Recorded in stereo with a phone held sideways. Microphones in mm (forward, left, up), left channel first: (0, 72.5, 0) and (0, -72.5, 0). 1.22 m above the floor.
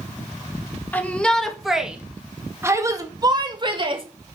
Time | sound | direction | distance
0.9 | a shout | 10° left (ahead or behind) | 2.0 m